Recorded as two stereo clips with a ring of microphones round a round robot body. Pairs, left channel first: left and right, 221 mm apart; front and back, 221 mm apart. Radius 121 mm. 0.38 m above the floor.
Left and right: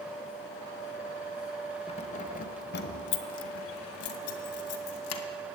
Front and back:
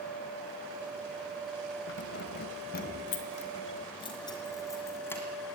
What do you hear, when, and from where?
1.9 s keys jangling: 25° left, 1.2 m; by 5.2 s 80° left, 2 m